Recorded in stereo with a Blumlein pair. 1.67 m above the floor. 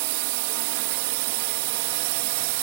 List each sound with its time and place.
0.0 s a drone: 50° right